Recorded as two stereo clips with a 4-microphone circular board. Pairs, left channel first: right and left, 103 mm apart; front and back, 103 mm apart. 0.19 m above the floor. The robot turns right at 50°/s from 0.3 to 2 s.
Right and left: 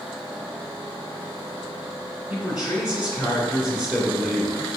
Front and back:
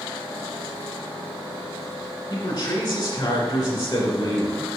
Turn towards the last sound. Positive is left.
turn(degrees=10)